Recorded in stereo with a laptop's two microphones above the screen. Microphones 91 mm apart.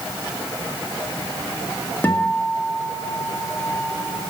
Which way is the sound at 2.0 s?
20° left (ahead or behind).